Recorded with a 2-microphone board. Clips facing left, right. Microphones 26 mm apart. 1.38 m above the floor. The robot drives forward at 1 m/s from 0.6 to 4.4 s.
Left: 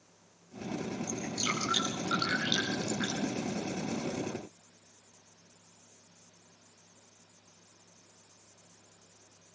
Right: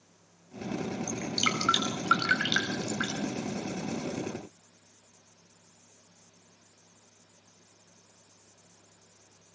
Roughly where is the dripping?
Right.